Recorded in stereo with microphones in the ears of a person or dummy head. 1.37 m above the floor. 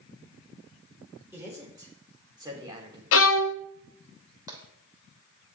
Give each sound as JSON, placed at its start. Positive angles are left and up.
{"t": 1.3, "sound": "a man speaking", "side_deg": -10, "distance_m": 5.0}
{"t": 3.1, "sound": "a violin", "side_deg": 75, "distance_m": 0.7}
{"t": 4.5, "sound": "tapping", "side_deg": -15, "distance_m": 3.0}